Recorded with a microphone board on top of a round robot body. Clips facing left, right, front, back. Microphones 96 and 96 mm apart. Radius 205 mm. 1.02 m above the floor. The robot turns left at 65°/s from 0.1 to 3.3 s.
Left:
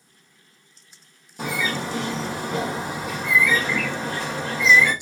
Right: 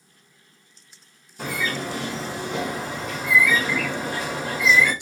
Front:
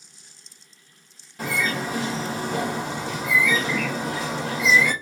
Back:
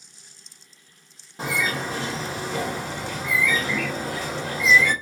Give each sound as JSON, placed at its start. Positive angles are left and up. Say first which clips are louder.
{"t": 1.4, "sound": "a bird", "louder": "left 1 dB, even", "azimuth_deg": 115, "distance_m": 1.1}